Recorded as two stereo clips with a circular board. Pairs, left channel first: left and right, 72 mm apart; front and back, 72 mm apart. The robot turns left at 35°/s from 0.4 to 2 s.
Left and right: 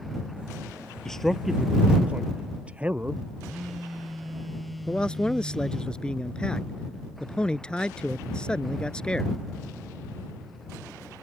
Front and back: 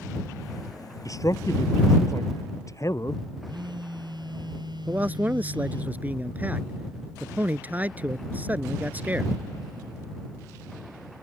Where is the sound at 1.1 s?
10° left; by 3.2 s 20° right.